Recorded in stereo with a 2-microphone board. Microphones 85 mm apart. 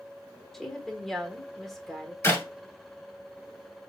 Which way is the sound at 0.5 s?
5° left (ahead or behind).